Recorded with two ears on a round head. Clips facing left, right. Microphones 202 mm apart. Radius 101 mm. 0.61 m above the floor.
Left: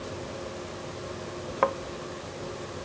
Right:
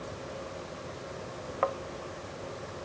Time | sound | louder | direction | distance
1.6 | a thud | left 4 dB | 65° left (ahead or behind) | ?